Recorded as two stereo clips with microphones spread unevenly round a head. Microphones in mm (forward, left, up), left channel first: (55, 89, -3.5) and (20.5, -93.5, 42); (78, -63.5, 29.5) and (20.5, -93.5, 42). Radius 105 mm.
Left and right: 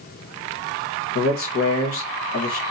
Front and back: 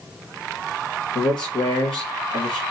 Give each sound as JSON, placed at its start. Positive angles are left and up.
{"t": 1.1, "sound": "a man speaking", "azimuth_deg": 60, "distance_m": 1.3}